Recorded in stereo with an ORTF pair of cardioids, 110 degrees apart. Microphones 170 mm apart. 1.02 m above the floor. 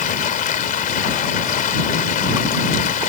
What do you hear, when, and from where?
0.0 s running water: 55° left